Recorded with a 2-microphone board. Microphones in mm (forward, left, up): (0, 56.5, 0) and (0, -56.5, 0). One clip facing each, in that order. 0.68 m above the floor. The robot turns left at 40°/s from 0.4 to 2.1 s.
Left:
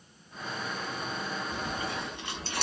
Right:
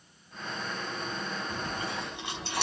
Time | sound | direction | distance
1.5 | chewing | 45° right (ahead or behind) | 1.6 m